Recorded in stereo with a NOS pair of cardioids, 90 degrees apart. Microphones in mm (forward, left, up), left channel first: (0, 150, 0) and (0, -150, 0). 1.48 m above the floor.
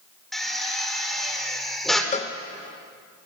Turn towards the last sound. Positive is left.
turn(degrees=25)